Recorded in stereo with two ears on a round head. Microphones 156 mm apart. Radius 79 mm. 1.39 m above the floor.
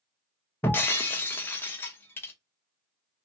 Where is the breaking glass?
10° left (ahead or behind), 0.6 m.